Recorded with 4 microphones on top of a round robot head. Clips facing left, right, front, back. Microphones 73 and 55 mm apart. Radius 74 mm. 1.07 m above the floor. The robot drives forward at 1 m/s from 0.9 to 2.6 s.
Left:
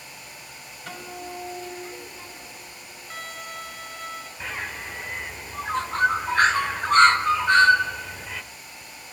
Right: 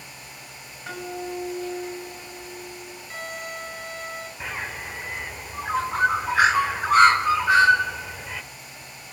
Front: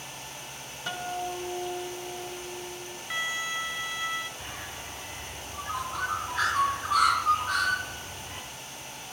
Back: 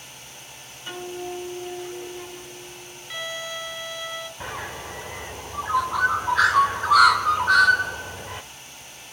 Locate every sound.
0.9 s a guitar: 10° right, 6.5 m
3.1 s a violin: 70° left, 5.5 m
4.4 s a bird: 175° right, 1.0 m